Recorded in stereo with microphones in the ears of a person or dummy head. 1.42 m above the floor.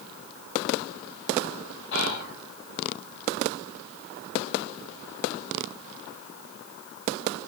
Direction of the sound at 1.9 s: 65° left (ahead or behind).